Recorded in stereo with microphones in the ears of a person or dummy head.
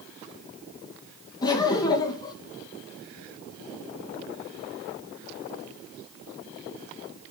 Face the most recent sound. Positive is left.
turn(degrees=25)  # may be behind; listen again after turning